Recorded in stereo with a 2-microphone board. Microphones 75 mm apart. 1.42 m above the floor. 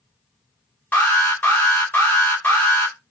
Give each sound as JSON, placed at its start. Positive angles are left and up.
{"t": 0.9, "sound": "an alarm", "side_deg": 25, "distance_m": 0.9}